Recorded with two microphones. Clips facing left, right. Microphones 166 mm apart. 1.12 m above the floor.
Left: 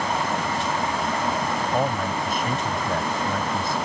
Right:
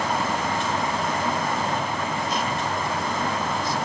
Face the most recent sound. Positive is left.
turn(degrees=55)  # may be behind; listen again after turning